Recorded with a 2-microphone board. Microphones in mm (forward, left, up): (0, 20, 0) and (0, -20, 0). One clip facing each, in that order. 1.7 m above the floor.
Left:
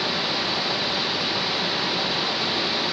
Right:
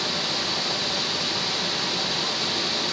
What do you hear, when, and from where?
0.0 s running water: 15° left (ahead or behind), 0.9 m